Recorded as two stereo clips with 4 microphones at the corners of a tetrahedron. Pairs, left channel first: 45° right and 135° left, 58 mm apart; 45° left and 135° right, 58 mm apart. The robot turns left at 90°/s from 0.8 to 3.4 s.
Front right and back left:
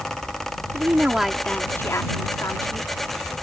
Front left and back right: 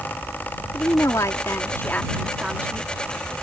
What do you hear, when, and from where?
0.7 s a woman speaking: 85° left; by 2.9 s 100° right